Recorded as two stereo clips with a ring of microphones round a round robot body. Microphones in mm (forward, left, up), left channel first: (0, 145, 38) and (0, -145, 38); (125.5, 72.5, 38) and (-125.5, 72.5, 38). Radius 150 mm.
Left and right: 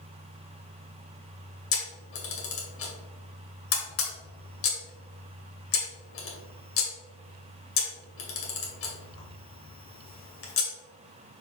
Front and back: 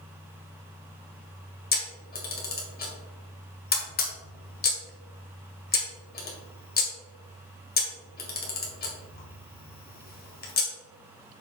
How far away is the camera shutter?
About 2 m.